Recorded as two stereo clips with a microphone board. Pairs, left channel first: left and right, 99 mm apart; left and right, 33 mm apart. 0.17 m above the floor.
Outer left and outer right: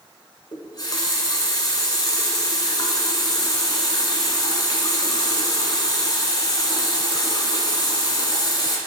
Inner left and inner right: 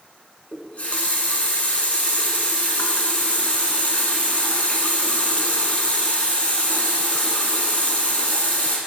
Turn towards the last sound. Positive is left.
turn(degrees=45)  # may be behind; listen again after turning